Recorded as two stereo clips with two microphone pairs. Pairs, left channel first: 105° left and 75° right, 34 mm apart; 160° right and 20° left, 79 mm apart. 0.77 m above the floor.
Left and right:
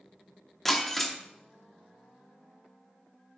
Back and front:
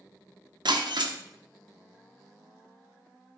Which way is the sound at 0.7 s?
25° left.